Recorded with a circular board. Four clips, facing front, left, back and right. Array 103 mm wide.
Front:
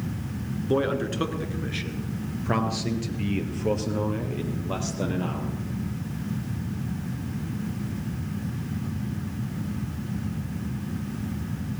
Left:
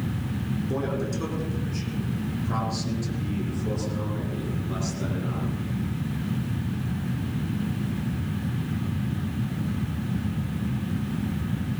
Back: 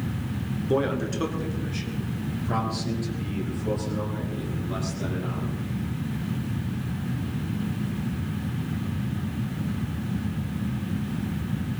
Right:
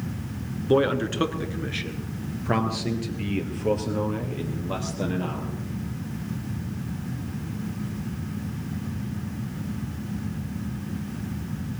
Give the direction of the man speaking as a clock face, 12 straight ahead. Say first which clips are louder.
Right 10 dB, even; 3 o'clock.